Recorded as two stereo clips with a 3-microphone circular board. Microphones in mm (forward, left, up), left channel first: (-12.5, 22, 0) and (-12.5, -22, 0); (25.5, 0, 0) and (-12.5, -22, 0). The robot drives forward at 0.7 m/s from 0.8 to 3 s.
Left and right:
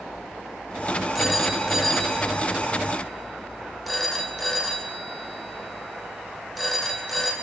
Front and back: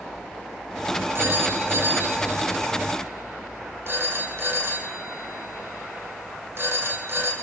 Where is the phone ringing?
175° right, 2.5 m.